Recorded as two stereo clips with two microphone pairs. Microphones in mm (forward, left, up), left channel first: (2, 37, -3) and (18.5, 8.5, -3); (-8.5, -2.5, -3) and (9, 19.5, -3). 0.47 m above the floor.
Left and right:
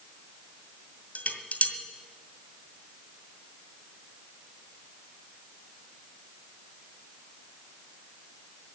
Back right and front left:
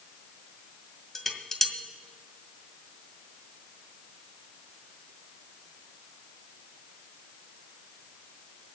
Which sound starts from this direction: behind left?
Dishes clattering, at 1.1 s.